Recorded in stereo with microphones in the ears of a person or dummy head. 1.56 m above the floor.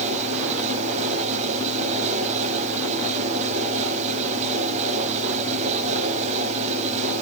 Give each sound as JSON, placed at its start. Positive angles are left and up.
{"t": 0.0, "sound": "a fan", "side_deg": -40, "distance_m": 1.7}